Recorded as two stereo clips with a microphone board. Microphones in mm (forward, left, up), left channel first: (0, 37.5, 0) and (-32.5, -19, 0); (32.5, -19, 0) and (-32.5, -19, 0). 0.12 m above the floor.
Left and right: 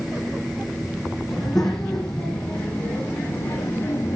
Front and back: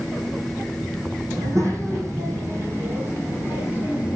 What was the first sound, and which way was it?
A child speaking, 145° left.